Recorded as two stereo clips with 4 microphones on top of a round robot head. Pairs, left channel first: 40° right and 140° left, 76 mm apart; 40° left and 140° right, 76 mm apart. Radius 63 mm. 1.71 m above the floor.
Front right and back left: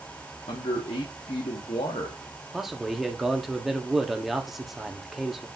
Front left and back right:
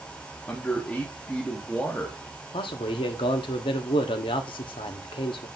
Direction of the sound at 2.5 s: 50° left.